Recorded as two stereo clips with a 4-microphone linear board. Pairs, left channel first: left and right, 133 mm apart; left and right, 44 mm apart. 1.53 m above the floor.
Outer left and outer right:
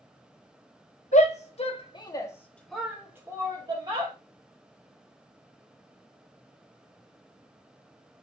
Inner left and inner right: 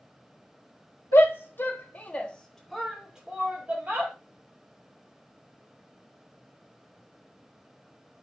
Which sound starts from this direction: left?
A shout, at 1.1 s.